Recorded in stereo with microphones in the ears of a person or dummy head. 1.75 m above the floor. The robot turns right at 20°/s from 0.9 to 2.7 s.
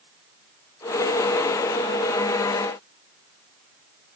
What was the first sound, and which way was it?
Only background noise.